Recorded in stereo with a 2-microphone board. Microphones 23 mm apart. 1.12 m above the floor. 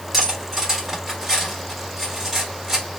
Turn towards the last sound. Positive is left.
turn(degrees=-20)  # may be behind; listen again after turning